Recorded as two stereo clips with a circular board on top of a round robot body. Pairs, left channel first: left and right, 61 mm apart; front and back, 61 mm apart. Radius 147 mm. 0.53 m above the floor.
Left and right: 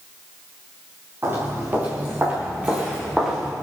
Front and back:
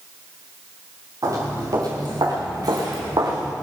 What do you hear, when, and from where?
1.2 s footsteps: 145° right, 4 m; by 3.5 s 175° right, 3 m